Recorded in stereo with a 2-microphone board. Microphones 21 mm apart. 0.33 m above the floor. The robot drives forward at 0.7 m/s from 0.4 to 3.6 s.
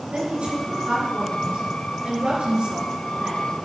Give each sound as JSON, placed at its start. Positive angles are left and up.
{"t": 0.1, "sound": "a woman speaking", "side_deg": -70, "distance_m": 5.5}